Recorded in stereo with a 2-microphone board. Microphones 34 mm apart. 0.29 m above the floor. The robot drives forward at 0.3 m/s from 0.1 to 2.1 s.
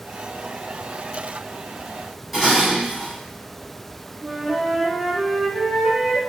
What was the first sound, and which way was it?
Dishes clattering, centre (ahead or behind).